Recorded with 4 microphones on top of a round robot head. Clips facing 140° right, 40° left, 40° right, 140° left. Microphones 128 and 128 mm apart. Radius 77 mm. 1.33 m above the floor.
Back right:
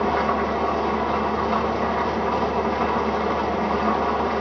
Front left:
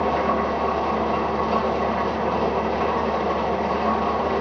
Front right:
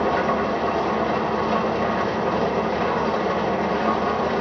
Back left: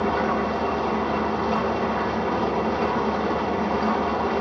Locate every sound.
0.0 s an engine running: 20° right, 1.5 m